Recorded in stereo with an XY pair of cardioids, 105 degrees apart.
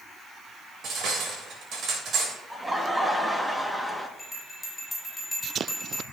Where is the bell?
5° left, 5.5 m.